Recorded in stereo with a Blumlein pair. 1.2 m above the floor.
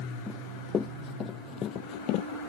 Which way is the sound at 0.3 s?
15° left.